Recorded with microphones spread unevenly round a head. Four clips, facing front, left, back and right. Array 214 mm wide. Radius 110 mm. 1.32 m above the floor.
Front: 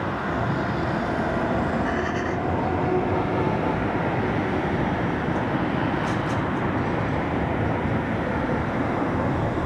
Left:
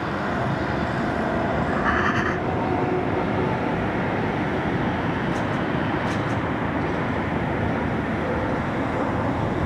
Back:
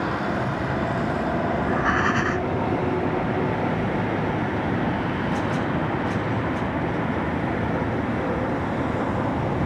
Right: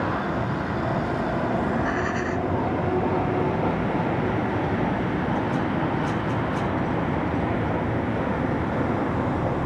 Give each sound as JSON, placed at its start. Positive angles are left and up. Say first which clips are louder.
{"t": 1.6, "sound": "breathing", "louder": "left 2 dB, back 2 dB", "azimuth_deg": 150}